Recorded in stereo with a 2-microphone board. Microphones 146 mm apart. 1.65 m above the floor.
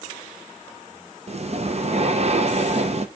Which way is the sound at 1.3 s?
45° right (ahead or behind).